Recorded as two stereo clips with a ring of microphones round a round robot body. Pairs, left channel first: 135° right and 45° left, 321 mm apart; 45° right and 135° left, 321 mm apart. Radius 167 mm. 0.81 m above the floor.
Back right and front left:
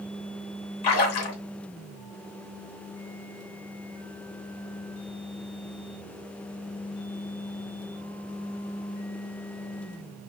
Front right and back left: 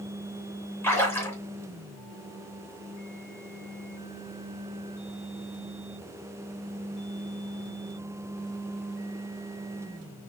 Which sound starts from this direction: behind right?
A splash, at 0.8 s.